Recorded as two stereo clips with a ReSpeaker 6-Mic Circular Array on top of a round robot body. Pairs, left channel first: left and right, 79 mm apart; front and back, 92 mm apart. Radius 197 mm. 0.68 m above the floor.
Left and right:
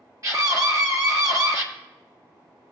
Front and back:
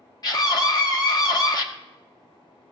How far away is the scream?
About 2.0 m.